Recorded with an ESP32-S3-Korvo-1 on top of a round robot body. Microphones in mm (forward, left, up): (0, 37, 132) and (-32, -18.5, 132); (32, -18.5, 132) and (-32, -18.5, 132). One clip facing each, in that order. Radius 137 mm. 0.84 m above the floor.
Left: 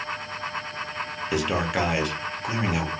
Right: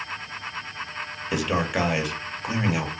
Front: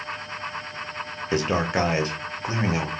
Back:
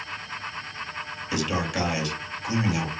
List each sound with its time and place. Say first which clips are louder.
1.3 s a man speaking: even, front 4 dB; 35° right, 0.9 m